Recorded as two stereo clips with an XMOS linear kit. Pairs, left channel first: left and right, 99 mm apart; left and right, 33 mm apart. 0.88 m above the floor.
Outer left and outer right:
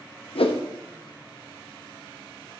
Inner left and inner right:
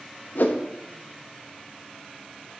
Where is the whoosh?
70° left (ahead or behind), 0.5 m.